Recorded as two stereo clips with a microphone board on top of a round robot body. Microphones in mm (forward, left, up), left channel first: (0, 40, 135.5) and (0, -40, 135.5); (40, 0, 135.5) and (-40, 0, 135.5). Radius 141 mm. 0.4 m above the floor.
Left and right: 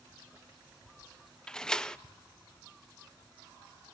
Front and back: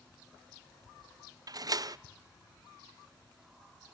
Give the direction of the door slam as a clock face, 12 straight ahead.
6 o'clock.